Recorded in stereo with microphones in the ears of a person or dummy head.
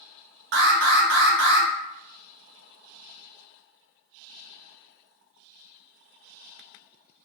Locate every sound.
0.5 s an alarm: 60° right (ahead or behind), 0.9 m